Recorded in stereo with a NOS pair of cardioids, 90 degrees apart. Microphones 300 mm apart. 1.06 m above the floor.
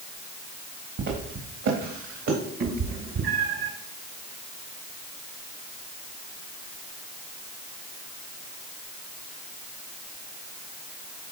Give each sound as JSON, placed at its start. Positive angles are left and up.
{"t": 1.0, "sound": "footsteps", "azimuth_deg": -70, "distance_m": 3.5}
{"t": 2.6, "sound": "a cat meowing", "azimuth_deg": -60, "distance_m": 2.0}